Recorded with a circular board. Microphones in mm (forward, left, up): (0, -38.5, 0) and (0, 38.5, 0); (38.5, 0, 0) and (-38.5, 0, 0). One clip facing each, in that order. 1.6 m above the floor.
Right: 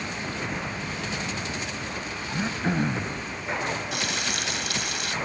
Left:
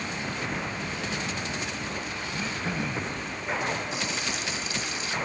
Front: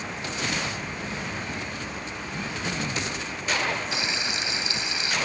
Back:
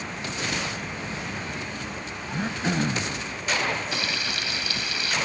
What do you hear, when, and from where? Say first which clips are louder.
2.3 s throat clearing: right 6 dB, back 6 dB; 140° right
3.9 s frying: right 2 dB, even; 70° right